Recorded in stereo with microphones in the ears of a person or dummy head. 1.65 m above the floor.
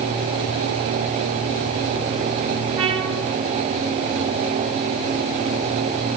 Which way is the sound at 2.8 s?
30° right (ahead or behind).